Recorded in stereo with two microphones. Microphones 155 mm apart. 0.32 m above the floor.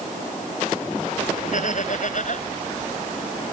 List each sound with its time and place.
1.5 s laughter: 60° left (ahead or behind)